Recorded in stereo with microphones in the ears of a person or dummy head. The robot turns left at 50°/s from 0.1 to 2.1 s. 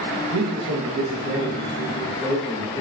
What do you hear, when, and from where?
0.3 s a man speaking: 105° right, 1.0 m; by 2.8 s 170° left, 1.0 m